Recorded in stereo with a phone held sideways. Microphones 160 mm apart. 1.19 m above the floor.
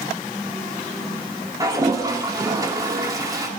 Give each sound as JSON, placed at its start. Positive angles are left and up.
{"t": 1.6, "sound": "a toilet flushing", "side_deg": -20, "distance_m": 2.0}